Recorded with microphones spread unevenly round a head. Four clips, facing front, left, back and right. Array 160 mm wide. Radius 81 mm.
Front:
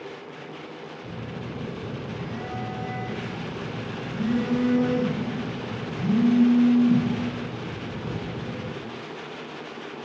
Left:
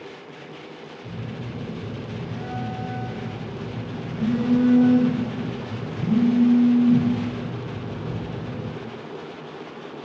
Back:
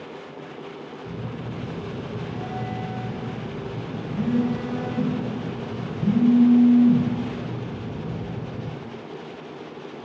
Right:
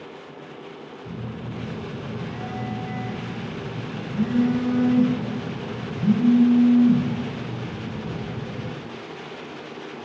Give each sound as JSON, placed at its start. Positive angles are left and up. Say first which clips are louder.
{"t": 1.0, "sound": "a phone buzzing", "louder": "even, back 2 dB", "azimuth_deg": 0, "distance_m": 1.3}